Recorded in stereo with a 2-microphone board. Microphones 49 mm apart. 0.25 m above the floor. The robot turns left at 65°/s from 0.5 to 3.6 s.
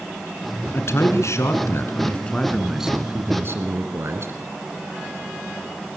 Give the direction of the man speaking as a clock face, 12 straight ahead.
8 o'clock.